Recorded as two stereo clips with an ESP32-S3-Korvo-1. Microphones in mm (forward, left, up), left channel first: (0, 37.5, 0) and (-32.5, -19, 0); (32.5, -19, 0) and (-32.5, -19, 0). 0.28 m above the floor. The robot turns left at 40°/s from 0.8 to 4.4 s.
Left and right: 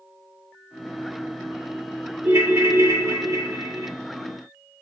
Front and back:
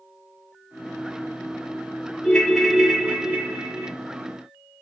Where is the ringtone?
75° right, 0.8 m; by 3.9 s 140° right, 0.8 m.